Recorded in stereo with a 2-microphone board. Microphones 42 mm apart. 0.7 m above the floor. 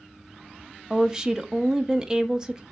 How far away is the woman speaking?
About 0.6 m.